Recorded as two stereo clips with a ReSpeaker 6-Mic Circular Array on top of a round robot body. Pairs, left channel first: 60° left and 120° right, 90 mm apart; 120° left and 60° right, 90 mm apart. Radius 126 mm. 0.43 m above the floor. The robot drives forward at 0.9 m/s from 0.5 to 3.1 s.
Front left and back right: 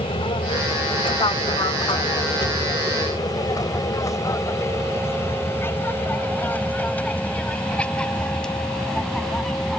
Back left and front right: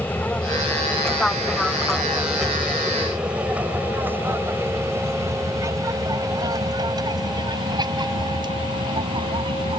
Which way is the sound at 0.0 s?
50° left.